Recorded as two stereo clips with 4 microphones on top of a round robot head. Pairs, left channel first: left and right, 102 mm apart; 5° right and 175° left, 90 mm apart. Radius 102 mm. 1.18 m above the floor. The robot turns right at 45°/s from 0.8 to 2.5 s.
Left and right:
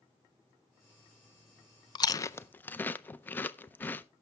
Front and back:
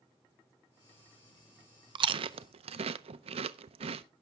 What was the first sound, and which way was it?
Chewing, 140° left.